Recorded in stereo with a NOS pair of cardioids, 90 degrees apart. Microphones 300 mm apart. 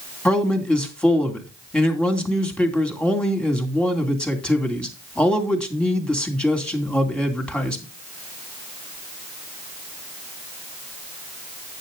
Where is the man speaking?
5° left, 2.5 m.